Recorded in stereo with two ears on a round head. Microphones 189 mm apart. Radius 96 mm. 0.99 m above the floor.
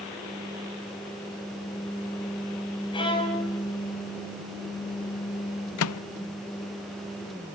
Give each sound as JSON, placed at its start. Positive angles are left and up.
{"t": 2.9, "sound": "a violin", "side_deg": 25, "distance_m": 6.5}
{"t": 5.8, "sound": "a microwave", "side_deg": 75, "distance_m": 0.5}